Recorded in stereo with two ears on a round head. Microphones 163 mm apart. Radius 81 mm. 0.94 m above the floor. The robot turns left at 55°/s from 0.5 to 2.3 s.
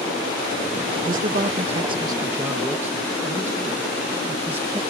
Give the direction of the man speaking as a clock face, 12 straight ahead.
3 o'clock.